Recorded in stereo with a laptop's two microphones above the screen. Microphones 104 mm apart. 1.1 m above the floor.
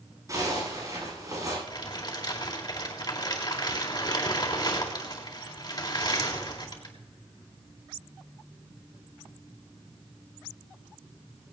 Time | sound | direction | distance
0.3 | a zipper | 35° right (ahead or behind) | 10 m
1.7 | crumpling | 40° left (ahead or behind) | 4 m